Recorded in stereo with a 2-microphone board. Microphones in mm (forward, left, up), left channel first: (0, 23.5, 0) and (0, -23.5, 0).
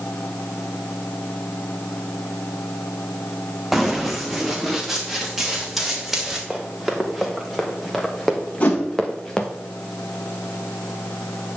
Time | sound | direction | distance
3.7 | running footsteps | 5° right (ahead or behind) | 1.4 m
6.5 | running footsteps | 5° right (ahead or behind) | 3 m
8.6 | a whoosh | 30° left (ahead or behind) | 2.5 m